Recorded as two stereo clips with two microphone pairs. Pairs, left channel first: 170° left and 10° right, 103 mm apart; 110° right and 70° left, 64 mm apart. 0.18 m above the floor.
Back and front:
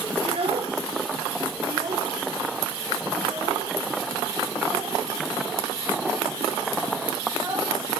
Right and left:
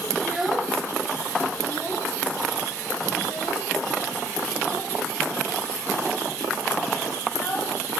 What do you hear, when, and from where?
0.2 s a child speaking: 20° right, 1.9 m; by 8.0 s 65° right, 10.5 m